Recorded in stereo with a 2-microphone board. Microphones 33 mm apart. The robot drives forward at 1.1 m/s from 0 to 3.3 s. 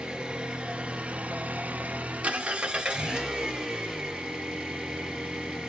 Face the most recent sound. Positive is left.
turn(degrees=-25)  # may be behind; listen again after turning